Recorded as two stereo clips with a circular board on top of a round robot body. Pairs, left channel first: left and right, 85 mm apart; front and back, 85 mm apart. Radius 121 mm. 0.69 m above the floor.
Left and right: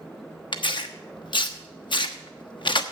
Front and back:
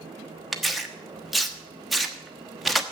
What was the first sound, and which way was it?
Tearing paper, 90° left.